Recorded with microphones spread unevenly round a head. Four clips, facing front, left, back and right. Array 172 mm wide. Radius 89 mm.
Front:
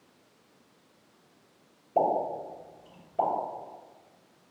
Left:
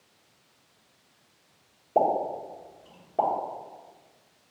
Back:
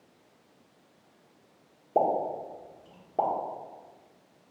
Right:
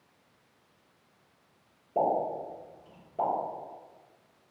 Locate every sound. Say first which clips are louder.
1.9 s a pop: left 3 dB, even; 150° left, 1.2 m